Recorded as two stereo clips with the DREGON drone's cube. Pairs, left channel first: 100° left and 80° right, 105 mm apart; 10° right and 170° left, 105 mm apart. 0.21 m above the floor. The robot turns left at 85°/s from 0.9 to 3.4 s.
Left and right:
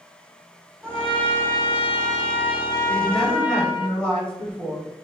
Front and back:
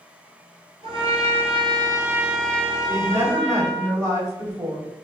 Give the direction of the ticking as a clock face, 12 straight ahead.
I don't hear ticking.